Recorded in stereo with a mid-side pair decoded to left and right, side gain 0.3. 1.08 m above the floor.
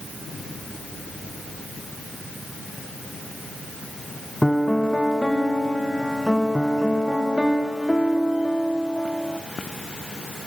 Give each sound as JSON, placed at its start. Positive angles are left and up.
{"t": 4.4, "sound": "a piano", "azimuth_deg": 5, "distance_m": 0.9}